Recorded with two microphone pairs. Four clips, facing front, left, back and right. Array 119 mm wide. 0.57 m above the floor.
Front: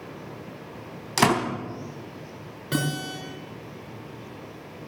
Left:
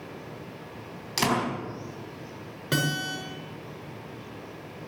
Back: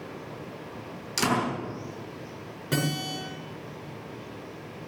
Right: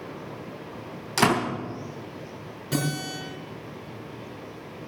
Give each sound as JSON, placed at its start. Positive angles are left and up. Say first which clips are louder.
{"t": 1.2, "sound": "a door slam", "louder": "right 4 dB, front 5 dB", "azimuth_deg": -15, "distance_m": 3.5}
{"t": 2.7, "sound": "a guitar", "louder": "even, front 1 dB", "azimuth_deg": 75, "distance_m": 6.0}